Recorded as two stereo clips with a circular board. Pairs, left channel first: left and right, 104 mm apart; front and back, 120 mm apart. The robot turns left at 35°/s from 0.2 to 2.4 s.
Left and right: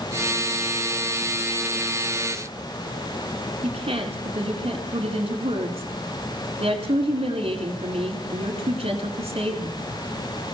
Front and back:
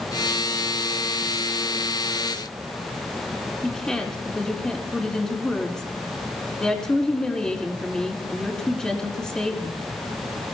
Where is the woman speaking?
85° right, 4.5 m.